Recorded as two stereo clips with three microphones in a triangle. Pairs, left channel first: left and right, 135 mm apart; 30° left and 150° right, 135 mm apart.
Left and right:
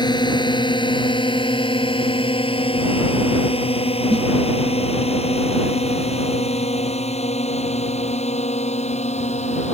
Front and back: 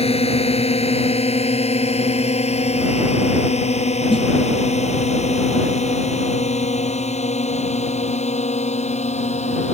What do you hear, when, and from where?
0.0 s a drone: 45° left; by 9.7 s 60° left
4.1 s a snare drum: 10° left